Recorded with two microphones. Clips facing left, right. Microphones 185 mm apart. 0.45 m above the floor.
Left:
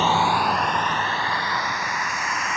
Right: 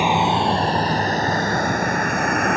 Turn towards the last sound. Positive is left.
turn(degrees=-55)  # may be behind; listen again after turning